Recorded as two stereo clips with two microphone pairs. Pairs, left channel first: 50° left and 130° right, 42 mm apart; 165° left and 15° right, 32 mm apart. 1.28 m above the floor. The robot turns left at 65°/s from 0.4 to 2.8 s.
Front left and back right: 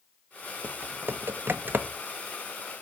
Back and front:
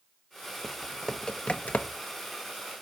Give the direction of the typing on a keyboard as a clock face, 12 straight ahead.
3 o'clock.